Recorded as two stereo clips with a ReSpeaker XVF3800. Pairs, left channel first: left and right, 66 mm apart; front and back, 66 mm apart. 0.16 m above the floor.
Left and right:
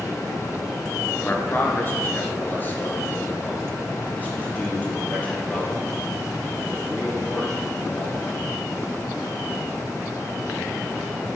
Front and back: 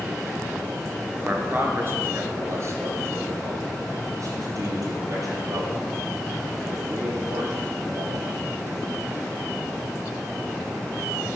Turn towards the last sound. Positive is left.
turn(degrees=160)